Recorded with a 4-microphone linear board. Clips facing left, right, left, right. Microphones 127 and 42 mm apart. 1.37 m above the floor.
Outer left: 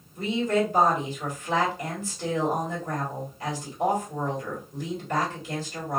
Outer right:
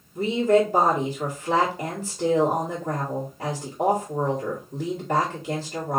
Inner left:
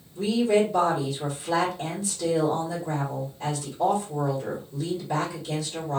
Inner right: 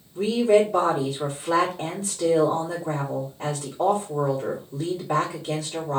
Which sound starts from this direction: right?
A woman speaking, at 0.1 s.